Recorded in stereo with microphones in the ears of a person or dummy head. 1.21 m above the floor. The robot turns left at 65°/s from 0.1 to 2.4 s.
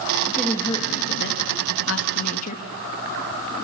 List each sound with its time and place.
0.2 s a woman speaking: 170° right, 1.5 m; by 2.6 s 45° left, 1.5 m